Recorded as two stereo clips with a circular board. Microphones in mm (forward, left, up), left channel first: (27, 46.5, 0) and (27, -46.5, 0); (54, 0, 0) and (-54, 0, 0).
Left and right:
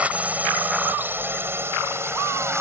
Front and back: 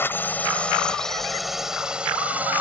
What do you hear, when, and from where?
0.0 s a drone: 35° right; by 2.6 s 120° right